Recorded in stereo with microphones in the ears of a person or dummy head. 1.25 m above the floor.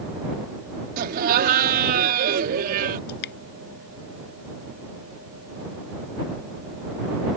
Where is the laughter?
45° right (ahead or behind).